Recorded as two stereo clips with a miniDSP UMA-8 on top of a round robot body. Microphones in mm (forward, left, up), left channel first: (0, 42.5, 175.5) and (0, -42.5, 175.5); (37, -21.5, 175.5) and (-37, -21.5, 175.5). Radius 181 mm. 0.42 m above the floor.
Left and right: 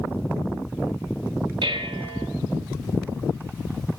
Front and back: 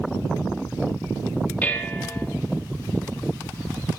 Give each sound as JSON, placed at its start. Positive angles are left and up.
{"t": 1.6, "sound": "dishes clattering", "azimuth_deg": -70, "distance_m": 1.3}